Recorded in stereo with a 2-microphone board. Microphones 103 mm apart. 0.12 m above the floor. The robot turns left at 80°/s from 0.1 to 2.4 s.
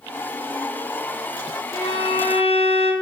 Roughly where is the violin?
Behind left.